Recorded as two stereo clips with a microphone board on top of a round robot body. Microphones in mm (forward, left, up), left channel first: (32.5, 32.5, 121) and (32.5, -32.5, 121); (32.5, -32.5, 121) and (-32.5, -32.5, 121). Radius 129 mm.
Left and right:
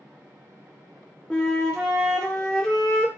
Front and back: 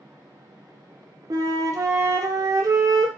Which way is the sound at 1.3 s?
170° left.